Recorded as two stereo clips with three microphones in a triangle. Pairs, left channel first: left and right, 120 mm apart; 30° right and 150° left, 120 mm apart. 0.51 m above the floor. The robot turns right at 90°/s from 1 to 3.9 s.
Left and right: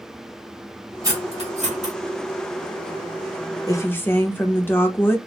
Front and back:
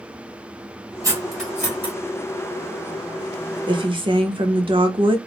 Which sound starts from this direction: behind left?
A woman speaking, at 3.7 s.